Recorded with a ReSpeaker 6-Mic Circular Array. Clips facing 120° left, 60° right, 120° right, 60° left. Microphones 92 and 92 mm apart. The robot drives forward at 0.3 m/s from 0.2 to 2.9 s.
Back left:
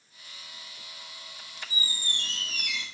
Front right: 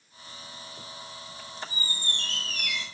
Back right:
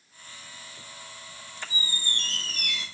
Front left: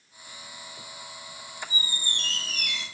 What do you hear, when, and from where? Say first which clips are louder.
1.7 s a squeak: front right 1 dB, back right 2 dB; 165° right, 0.6 m; by 2.9 s 170° right, 1.0 m